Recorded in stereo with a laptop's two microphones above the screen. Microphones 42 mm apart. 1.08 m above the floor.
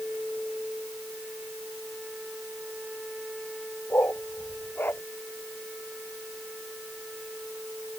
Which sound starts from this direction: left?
A dog barking, at 3.9 s.